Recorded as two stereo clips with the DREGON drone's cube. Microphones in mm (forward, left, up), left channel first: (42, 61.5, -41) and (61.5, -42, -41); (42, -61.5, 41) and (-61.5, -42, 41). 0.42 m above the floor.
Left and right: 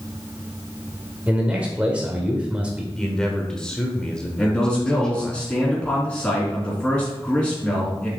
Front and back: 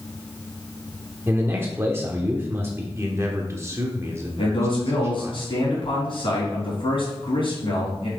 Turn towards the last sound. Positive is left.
turn(degrees=20)